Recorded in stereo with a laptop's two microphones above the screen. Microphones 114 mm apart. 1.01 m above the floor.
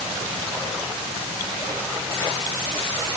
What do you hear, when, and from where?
Only background noise.